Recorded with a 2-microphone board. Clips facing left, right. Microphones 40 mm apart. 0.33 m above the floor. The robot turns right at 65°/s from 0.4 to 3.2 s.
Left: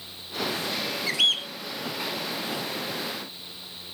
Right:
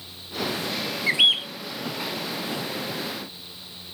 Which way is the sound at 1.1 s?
30° right (ahead or behind).